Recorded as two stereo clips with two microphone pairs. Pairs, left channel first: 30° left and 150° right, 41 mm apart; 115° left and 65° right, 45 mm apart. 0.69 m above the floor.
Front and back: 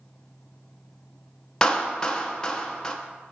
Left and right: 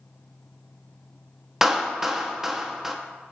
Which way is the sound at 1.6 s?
15° right.